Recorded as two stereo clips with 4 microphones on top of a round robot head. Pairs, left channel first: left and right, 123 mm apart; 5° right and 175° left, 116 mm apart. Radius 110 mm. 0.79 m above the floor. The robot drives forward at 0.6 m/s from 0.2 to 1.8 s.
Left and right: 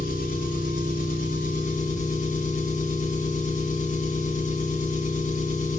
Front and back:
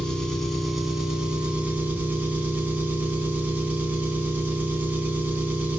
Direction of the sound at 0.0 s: 80° left.